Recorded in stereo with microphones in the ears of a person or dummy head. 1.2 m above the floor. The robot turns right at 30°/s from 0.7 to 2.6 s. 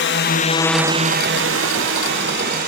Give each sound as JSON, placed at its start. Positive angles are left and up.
{"t": 0.0, "sound": "a drone", "side_deg": 60}